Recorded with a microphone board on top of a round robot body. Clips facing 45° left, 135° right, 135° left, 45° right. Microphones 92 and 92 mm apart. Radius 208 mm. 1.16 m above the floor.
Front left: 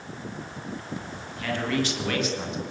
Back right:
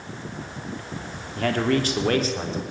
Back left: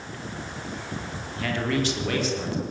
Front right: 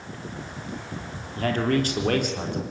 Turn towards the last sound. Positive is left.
turn(degrees=-80)